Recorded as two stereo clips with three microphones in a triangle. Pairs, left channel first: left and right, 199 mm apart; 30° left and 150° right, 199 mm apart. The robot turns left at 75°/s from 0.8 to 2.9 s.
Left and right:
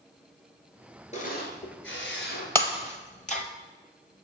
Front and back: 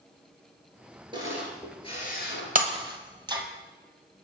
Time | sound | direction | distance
1.1 | a camera shutter | 145° left | 1.7 m
2.5 | breaking glass | 170° left | 0.9 m